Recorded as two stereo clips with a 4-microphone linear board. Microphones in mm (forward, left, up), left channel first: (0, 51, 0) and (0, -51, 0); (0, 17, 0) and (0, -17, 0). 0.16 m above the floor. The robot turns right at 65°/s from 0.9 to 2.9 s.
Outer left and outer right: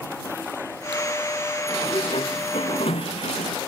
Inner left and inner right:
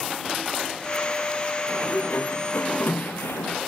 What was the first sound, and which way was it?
A sliding door, 35° left.